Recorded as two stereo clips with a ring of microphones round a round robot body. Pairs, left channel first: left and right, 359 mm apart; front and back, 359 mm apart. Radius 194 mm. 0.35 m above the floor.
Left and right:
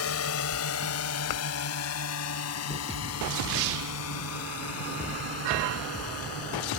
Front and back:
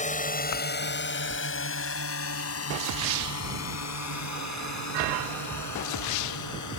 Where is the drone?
60° left; by 6.8 s 35° left.